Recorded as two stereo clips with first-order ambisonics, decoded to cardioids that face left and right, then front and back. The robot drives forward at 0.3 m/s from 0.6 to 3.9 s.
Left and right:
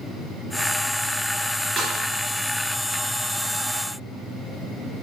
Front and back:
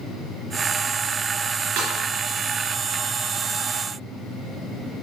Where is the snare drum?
170° right, 2.5 m.